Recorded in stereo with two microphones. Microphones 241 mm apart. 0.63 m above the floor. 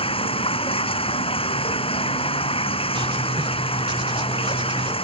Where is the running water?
25° left (ahead or behind).